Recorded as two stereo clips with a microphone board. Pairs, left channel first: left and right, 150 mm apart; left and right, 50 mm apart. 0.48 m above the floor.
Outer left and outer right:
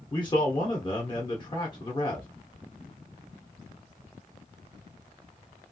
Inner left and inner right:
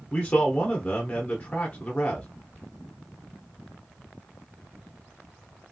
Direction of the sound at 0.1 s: 30° left (ahead or behind).